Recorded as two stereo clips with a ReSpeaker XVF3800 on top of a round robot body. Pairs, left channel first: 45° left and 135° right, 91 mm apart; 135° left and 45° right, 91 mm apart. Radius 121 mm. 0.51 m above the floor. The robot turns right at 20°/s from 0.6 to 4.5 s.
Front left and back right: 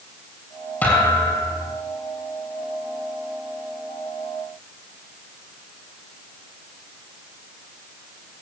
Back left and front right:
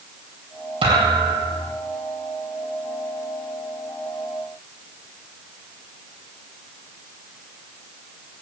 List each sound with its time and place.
0.8 s a thud: 25° right, 7 m; by 1.7 s 10° right, 7 m